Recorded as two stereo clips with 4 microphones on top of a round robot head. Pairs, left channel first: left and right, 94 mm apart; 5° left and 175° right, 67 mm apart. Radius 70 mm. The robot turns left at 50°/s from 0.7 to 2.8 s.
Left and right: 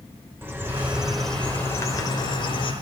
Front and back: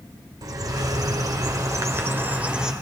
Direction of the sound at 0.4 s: 155° right.